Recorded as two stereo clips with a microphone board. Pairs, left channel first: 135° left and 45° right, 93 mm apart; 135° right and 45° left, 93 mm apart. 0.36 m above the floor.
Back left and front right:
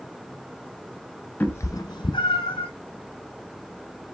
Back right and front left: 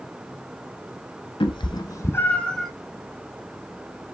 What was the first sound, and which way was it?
A cat meowing, 155° right.